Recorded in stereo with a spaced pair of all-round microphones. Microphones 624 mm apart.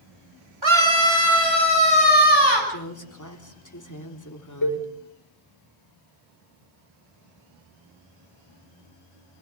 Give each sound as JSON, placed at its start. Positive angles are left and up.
{"t": 0.6, "sound": "a scream", "side_deg": -45, "distance_m": 4.5}
{"t": 2.7, "sound": "a woman speaking", "side_deg": 30, "distance_m": 3.5}
{"t": 4.6, "sound": "a cowbell", "side_deg": 30, "distance_m": 6.0}